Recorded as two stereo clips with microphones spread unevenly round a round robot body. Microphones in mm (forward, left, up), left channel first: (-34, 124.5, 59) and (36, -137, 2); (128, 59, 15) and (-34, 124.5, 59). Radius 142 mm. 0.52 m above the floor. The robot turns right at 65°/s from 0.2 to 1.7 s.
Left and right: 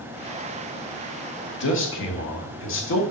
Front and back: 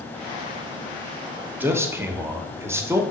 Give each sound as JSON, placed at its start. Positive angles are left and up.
{"t": 1.6, "sound": "a man speaking", "azimuth_deg": 65, "distance_m": 1.4}